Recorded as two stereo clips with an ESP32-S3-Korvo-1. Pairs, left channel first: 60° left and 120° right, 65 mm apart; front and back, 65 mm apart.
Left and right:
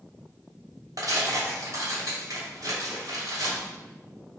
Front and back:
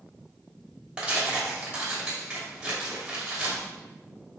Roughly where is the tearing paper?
Right.